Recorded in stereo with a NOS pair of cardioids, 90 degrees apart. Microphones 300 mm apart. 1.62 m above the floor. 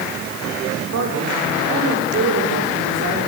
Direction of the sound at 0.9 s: 55° right.